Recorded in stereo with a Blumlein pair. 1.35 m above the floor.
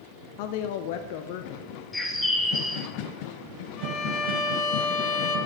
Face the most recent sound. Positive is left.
turn(degrees=35)